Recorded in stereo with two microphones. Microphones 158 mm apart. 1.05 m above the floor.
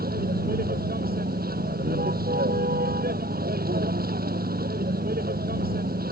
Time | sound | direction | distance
0.0 | a vehicle | 70° right (ahead or behind) | ?